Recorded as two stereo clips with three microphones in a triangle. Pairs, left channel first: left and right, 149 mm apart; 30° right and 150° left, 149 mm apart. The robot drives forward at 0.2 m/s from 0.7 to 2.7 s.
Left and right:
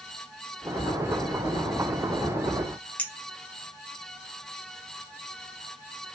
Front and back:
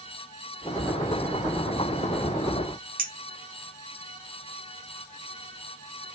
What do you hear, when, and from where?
3.0 s a clink: 170° left, 0.5 m